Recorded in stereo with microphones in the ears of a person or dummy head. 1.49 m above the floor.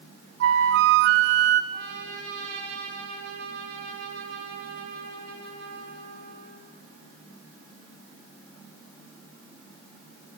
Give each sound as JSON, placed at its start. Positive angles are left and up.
{"t": 0.4, "sound": "a flute", "side_deg": -70, "distance_m": 1.1}
{"t": 1.7, "sound": "a trumpet", "side_deg": -60, "distance_m": 8.0}